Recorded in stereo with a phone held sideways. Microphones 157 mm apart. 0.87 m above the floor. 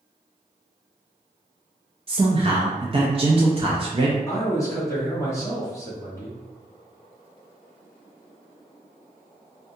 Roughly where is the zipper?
No zipper in this recording.